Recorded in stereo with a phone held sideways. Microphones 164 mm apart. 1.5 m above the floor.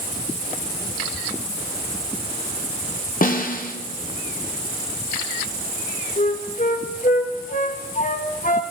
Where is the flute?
50° left (ahead or behind), 1.0 m.